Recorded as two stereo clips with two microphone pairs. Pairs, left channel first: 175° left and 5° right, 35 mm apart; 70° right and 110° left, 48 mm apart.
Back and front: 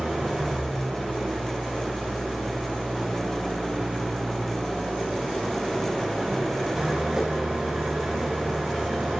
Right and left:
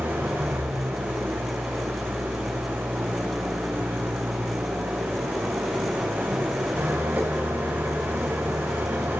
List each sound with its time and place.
0.0 s an engine running: 65° left, 7 m